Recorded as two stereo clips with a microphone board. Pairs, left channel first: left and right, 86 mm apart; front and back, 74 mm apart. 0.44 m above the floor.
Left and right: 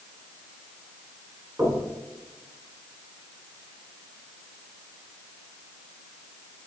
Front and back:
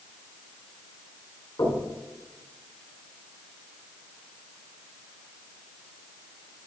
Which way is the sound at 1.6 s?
35° right.